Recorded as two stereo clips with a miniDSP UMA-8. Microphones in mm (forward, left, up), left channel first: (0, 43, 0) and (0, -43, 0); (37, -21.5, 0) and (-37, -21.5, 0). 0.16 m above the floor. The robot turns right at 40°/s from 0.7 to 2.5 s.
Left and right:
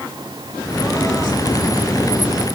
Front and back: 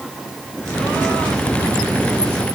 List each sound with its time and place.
Only background noise.